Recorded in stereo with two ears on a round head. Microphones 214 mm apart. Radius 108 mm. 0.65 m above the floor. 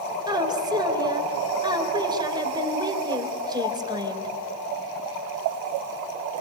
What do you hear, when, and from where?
0.3 s a woman speaking: 20° right (ahead or behind), 3.5 m